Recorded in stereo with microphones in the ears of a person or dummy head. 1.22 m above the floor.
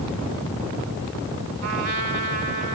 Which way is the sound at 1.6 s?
45° right (ahead or behind).